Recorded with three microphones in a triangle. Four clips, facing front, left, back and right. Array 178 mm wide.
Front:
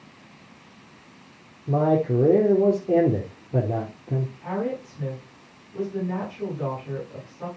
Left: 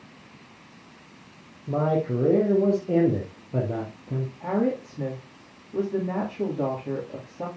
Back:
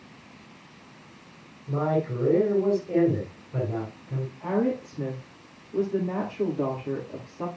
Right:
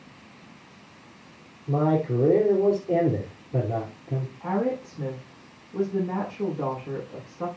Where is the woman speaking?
130° left, 7 m.